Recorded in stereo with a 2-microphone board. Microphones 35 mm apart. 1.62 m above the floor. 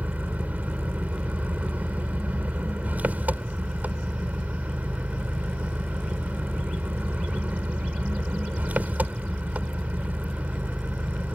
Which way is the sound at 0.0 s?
50° right (ahead or behind).